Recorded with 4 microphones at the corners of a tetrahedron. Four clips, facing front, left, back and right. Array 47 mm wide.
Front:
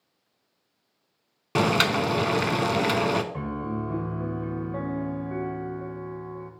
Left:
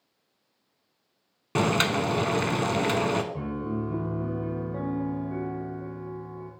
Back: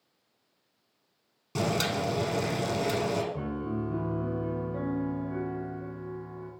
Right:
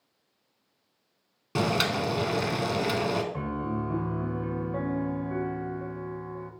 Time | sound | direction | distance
1.6 | boiling | 25° left | 0.6 m
3.3 | a piano | 40° right | 1.4 m